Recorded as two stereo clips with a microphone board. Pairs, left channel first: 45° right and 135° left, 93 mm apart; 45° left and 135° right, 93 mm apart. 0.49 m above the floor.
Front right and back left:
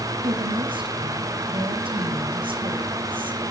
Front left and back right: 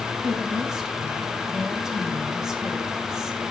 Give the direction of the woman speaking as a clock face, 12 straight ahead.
7 o'clock.